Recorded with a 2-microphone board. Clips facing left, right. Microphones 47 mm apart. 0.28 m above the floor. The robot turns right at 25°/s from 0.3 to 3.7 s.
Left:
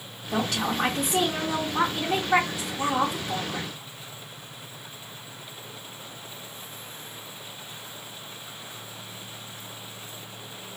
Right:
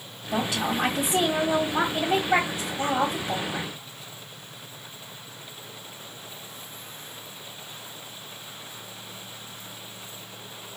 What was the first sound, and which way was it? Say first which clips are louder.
A woman speaking: even; 160° right.